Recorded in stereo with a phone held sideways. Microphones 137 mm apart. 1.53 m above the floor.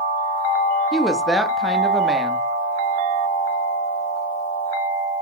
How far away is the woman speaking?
About 0.7 m.